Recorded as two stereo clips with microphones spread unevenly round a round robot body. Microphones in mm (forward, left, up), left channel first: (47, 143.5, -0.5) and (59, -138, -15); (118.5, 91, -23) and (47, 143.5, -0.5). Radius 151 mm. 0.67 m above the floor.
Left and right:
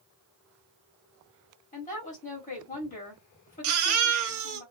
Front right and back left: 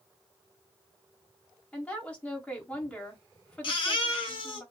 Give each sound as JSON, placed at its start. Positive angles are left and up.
{"t": 1.7, "sound": "a woman speaking", "azimuth_deg": 30, "distance_m": 1.9}
{"t": 3.6, "sound": "a baby crying", "azimuth_deg": -50, "distance_m": 1.4}